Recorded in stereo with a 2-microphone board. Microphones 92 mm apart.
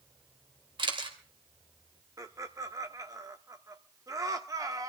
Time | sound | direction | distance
0.8 | a camera shutter | 60° right (ahead or behind) | 2 m
2.2 | laughter | 40° right (ahead or behind) | 1.3 m